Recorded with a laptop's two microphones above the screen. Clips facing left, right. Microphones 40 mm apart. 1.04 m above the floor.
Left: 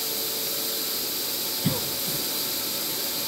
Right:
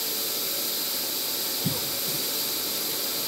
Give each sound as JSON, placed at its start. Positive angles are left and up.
{"t": 1.6, "sound": "a cough", "side_deg": 40, "distance_m": 0.7}